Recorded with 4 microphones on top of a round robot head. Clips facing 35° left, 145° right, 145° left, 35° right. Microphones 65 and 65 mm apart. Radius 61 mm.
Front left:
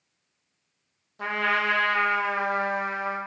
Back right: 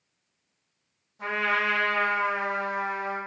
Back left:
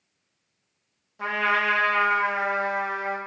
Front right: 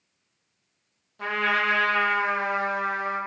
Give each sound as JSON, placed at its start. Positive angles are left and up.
{"t": 1.2, "sound": "a trumpet", "azimuth_deg": 70, "distance_m": 0.6}